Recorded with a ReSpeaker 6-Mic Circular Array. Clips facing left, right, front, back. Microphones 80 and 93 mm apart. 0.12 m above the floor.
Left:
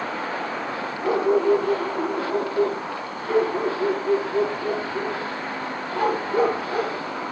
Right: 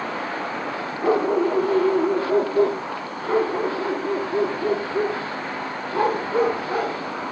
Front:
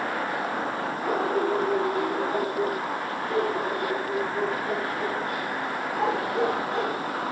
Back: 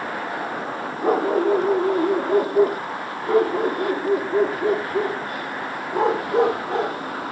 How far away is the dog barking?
About 6 m.